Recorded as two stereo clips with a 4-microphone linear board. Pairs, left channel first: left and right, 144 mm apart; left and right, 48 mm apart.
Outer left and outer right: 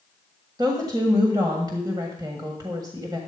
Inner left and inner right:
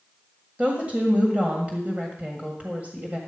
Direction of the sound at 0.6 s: 25° right (ahead or behind).